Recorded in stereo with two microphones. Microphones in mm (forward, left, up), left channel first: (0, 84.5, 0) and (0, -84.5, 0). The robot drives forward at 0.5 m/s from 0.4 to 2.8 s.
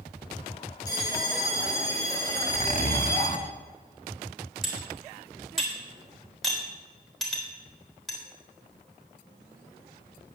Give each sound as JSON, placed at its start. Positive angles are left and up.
{"t": 0.9, "sound": "a bell", "side_deg": 20, "distance_m": 3.5}
{"t": 2.3, "sound": "a zipper", "side_deg": 40, "distance_m": 1.2}
{"t": 4.6, "sound": "cutlery clinking", "side_deg": 0, "distance_m": 3.0}